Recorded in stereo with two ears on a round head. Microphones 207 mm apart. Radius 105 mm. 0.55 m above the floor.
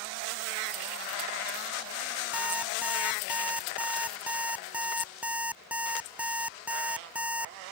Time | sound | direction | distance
2.3 | an alarm clock | 5° right (ahead or behind) | ?